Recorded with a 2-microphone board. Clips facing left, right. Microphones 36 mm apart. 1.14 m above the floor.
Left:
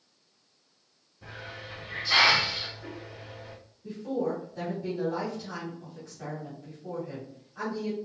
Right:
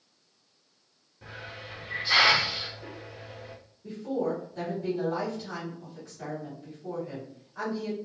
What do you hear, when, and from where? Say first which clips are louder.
1.2 s a hiss: even; 35° right (ahead or behind), 1.5 m
3.8 s a woman speaking: even; 15° right (ahead or behind), 2.0 m